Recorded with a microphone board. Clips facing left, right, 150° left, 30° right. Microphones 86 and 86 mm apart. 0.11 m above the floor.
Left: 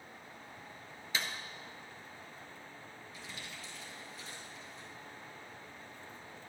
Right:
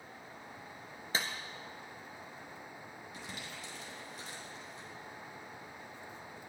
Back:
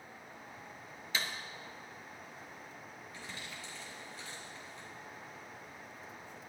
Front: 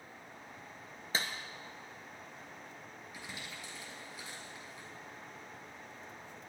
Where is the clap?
65° right, 1.5 m.